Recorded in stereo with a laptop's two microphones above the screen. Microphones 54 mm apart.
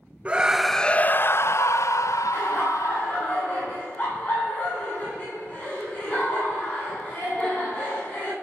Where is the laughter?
35° left (ahead or behind), 8.5 m.